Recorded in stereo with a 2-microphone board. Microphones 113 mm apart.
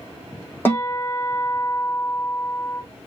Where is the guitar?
20° left (ahead or behind), 3 m.